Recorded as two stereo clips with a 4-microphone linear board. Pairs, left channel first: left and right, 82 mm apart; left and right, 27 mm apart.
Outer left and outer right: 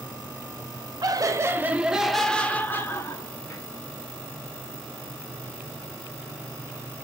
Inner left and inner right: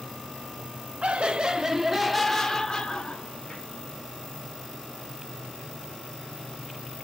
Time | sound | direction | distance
1.0 | laughter | 50° right (ahead or behind) | 0.9 m